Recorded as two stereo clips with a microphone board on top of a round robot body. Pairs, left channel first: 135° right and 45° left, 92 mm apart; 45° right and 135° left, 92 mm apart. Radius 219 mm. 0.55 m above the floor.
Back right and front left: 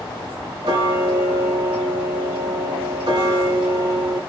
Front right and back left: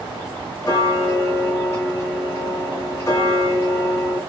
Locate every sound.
0.6 s ticking: 15° left, 1.9 m